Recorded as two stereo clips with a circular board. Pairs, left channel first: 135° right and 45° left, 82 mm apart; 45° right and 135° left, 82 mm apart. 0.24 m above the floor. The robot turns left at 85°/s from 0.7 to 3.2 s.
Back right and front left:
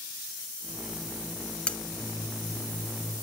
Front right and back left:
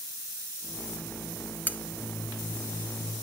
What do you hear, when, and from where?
1.7 s cutlery clinking: 75° right, 0.5 m; by 1.8 s 90° right, 0.5 m